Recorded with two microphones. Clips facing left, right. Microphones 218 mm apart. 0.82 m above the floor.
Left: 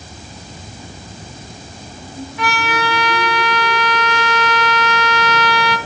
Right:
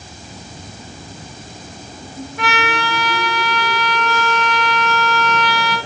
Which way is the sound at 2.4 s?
55° right (ahead or behind).